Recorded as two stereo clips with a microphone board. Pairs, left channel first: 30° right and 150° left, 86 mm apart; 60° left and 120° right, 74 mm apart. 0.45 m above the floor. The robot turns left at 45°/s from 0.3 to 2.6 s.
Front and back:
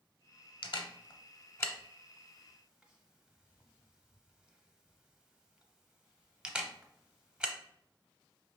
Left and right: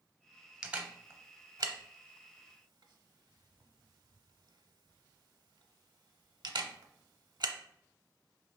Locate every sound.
0.6 s a camera shutter: 40° right, 0.6 m; by 7.5 s 130° right, 0.6 m